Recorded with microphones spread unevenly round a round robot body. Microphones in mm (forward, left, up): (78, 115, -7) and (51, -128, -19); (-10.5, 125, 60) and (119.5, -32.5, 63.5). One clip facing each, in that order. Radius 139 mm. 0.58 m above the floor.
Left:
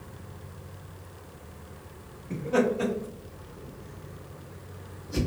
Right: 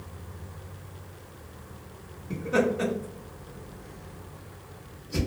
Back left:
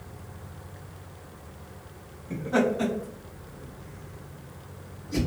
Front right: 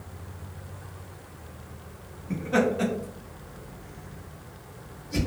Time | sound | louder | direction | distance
2.3 | laughter | even, even | 45° right | 1.4 m